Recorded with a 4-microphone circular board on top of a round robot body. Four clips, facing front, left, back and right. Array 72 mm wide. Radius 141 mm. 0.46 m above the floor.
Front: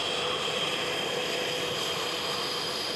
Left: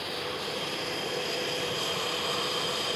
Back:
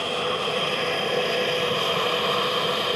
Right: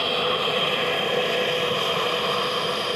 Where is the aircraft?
120° right; by 3.0 s 145° right.